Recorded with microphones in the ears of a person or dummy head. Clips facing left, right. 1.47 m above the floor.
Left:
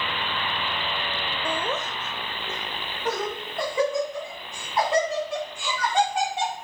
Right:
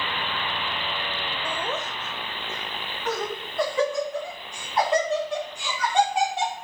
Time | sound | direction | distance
1.4 | laughter | 70° left (ahead or behind) | 0.6 m